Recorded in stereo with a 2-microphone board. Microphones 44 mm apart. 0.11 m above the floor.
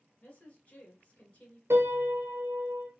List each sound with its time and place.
0.2 s a woman speaking: 30° left (ahead or behind), 1.4 m
1.7 s a piano: 75° right (ahead or behind), 0.7 m